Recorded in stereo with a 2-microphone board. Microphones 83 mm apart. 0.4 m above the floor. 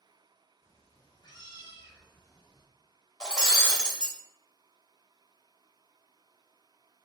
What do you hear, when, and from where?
0.6 s a cat meowing: 35° left (ahead or behind), 1.2 m; by 2.6 s 50° left (ahead or behind), 1.3 m
3.2 s breaking glass: 10° left (ahead or behind), 0.9 m